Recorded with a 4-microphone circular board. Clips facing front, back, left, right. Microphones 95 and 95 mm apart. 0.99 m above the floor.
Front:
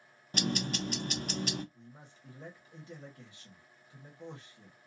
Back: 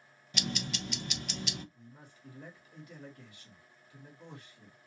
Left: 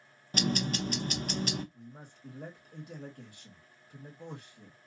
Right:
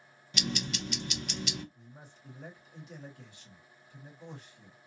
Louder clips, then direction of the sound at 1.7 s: Even, left 4 dB; 60° left.